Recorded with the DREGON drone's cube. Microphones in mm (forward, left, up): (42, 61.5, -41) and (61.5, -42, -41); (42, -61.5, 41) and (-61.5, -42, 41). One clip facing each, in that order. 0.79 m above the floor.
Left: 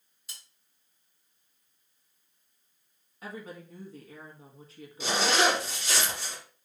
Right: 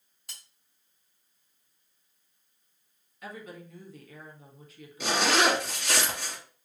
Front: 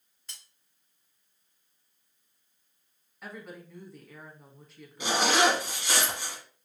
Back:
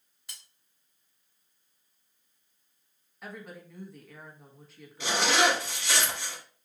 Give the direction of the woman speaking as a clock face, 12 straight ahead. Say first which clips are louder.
Left 1 dB, even; 9 o'clock.